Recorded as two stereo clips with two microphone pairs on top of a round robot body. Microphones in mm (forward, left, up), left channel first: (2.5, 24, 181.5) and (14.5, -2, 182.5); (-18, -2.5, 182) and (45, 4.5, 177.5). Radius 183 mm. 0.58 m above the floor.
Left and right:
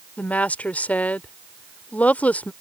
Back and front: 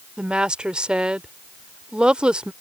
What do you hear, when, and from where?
0.2 s a woman speaking: 80° left